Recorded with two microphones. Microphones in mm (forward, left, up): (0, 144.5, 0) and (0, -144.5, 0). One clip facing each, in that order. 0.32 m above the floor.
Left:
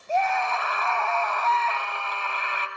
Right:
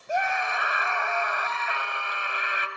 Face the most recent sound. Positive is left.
turn(degrees=-15)  # may be behind; listen again after turning